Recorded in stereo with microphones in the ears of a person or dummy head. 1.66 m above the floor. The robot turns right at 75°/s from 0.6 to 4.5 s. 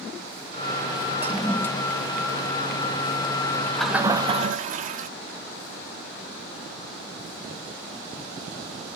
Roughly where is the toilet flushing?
Centre.